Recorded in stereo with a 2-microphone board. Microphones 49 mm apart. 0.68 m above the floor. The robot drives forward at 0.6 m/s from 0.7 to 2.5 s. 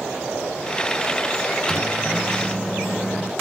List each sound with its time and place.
1.7 s a microwave: 10° left (ahead or behind), 0.6 m